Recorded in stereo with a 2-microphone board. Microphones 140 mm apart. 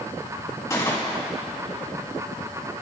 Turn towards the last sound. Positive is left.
turn(degrees=20)  # may be behind; listen again after turning